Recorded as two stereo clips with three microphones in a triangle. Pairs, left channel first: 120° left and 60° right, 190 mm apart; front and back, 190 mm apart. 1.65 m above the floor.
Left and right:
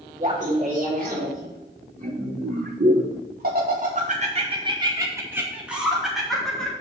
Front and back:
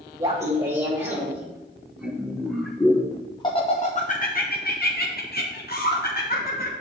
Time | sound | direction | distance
0.2 | laughter | 110° right | 2 m